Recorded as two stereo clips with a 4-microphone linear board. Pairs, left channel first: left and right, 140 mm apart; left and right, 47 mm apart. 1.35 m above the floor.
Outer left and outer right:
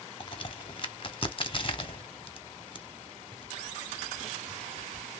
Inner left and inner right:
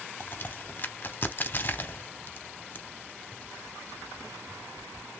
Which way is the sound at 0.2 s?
40° left (ahead or behind).